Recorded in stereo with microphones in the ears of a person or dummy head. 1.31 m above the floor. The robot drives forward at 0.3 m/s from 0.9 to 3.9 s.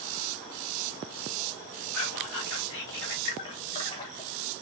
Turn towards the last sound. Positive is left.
turn(degrees=20)  # may be behind; listen again after turning